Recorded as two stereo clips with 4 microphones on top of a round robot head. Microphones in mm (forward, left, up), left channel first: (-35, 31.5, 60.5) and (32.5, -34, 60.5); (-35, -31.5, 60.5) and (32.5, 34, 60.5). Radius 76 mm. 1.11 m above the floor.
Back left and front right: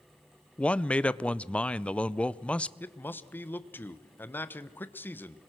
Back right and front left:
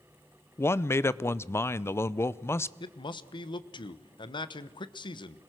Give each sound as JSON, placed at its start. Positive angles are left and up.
{"t": 0.6, "sound": "a man speaking", "azimuth_deg": -160, "distance_m": 0.6}
{"t": 2.8, "sound": "a man speaking", "azimuth_deg": -160, "distance_m": 1.1}